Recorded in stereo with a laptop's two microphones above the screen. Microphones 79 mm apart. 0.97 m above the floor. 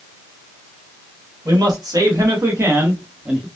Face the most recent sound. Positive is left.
turn(degrees=-10)  # may be behind; listen again after turning